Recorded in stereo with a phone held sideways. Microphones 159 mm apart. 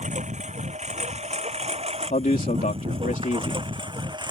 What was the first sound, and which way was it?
A lawn mower, 50° right (ahead or behind).